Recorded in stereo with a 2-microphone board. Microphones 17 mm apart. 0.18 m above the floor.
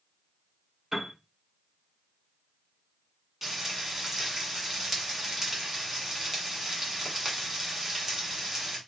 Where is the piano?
25° right (ahead or behind), 2.5 m.